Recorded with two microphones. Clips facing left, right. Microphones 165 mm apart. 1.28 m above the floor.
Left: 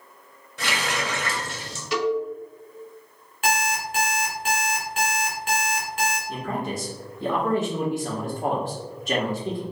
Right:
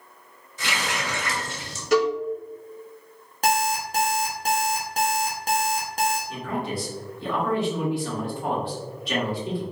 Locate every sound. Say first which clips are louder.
0.6 s a running tap: left 2 dB; 70° left (ahead or behind), 1.4 m
1.9 s a cowbell: right 3 dB; 45° right (ahead or behind), 1.3 m
3.4 s an alarm clock: right 2 dB; 40° right (ahead or behind), 1.0 m
6.3 s a man speaking: even; 45° left (ahead or behind), 1.3 m